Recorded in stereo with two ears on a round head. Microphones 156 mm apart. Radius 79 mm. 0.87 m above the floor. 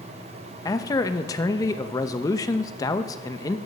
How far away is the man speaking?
About 0.5 m.